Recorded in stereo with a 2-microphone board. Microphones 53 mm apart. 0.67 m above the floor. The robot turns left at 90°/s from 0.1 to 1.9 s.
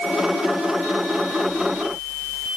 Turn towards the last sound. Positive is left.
No sound to turn to.